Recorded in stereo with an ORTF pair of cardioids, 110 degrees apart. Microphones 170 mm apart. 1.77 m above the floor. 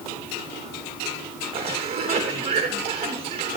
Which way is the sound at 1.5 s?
35° right.